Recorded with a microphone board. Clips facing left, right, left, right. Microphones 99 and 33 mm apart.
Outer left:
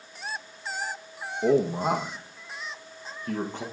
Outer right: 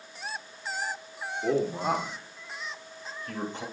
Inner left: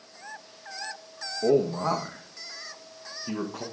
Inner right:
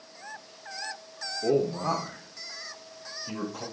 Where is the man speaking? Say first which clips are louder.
Outer left 4 dB, inner left 3 dB; 65° left (ahead or behind), 4 m; by 3.6 s 60° left (ahead or behind), 6 m.